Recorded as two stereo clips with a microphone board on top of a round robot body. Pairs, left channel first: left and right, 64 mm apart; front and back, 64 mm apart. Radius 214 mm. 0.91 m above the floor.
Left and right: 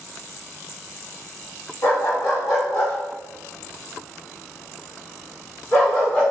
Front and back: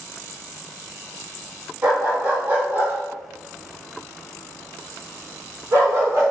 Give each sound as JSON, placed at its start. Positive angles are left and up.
{"t": 1.8, "sound": "a dog barking", "azimuth_deg": 115, "distance_m": 2.5}